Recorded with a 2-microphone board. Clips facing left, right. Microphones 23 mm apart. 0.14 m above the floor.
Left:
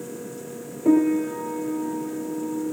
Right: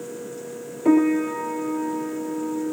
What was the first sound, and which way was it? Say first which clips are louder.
A piano: right 1 dB; 30° right (ahead or behind).